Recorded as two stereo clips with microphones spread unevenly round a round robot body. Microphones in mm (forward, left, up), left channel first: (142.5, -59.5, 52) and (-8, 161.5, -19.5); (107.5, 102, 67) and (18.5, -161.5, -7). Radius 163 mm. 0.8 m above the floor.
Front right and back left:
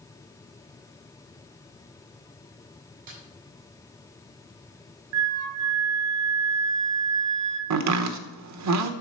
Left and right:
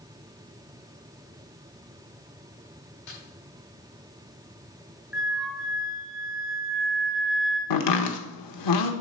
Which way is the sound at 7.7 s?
100° left.